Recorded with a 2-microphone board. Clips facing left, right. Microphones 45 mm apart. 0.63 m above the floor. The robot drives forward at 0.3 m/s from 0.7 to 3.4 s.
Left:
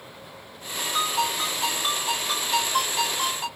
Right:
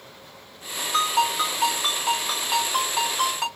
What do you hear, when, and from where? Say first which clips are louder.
0.9 s a ringtone: right 4 dB; 55° right (ahead or behind), 1.8 m; by 3.5 s 80° right, 1.5 m